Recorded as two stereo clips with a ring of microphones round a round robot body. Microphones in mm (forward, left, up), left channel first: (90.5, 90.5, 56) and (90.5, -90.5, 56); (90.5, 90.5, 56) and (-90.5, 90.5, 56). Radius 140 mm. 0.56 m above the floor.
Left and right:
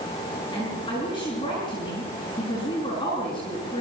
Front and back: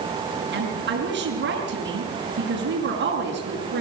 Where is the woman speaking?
160° left, 5.5 m.